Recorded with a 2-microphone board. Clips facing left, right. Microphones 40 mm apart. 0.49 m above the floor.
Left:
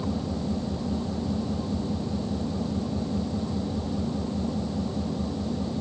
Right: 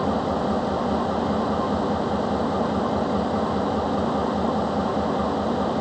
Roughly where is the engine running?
Right.